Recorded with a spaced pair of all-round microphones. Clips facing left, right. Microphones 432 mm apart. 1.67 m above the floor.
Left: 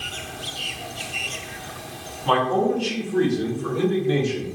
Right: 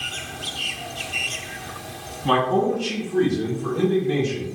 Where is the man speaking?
35° right (ahead or behind), 1.2 m; by 4.5 s centre (ahead or behind), 3 m.